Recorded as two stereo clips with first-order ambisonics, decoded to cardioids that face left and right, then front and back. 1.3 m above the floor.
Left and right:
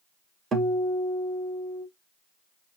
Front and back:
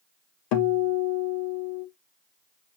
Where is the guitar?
20° right, 1.0 m.